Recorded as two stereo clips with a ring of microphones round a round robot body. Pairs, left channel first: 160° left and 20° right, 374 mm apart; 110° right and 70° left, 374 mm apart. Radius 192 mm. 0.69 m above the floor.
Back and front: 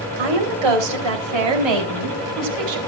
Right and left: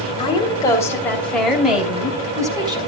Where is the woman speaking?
35° right, 3.5 m; by 2.8 s 10° right, 3.5 m.